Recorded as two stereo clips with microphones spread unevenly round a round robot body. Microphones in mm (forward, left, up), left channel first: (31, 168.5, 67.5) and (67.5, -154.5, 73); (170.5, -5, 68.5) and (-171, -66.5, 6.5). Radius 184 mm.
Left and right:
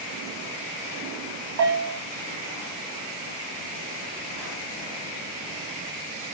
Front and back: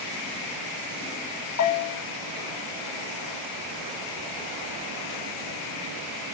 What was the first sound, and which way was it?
A bell, 40° right.